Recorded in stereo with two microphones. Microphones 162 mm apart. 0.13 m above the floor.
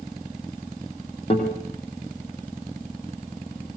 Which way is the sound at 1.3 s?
40° left (ahead or behind).